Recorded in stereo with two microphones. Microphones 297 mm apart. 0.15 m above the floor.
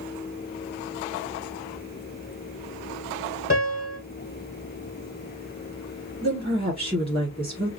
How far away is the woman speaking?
About 1.5 m.